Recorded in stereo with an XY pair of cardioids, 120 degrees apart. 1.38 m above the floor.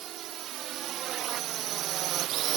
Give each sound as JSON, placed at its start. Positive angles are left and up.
{"t": 0.0, "sound": "a drone", "azimuth_deg": -65}